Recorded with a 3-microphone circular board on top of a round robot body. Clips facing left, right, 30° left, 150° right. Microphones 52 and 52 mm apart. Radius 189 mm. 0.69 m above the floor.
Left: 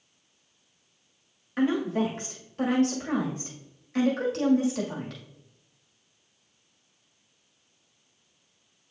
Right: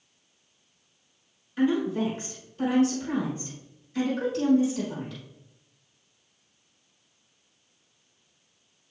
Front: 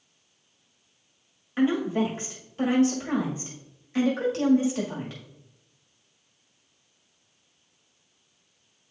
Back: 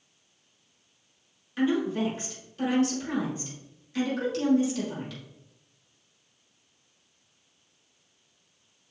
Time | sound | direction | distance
1.6 | a woman speaking | 85° left | 2 m